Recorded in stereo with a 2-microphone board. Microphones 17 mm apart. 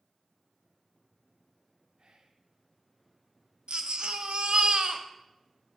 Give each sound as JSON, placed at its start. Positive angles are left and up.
{"t": 2.0, "sound": "whispering", "side_deg": -55, "distance_m": 0.8}
{"t": 3.7, "sound": "a baby crying", "side_deg": -80, "distance_m": 0.6}